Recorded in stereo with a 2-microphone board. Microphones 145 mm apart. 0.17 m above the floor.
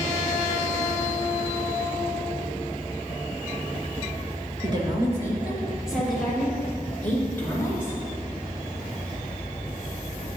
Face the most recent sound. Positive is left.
turn(degrees=15)  # may be behind; listen again after turning